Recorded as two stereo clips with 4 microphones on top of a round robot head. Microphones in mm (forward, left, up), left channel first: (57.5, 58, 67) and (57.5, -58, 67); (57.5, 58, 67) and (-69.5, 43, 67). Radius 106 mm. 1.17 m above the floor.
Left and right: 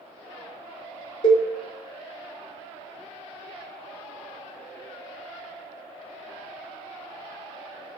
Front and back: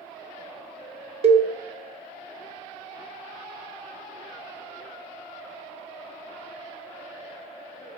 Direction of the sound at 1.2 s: 145° left.